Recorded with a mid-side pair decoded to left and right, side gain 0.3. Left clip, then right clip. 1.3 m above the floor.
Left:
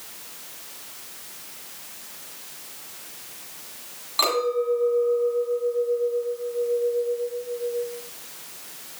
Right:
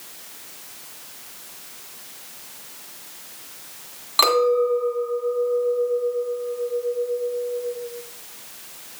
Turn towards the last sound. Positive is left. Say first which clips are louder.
# right 5 dB
turn(degrees=-65)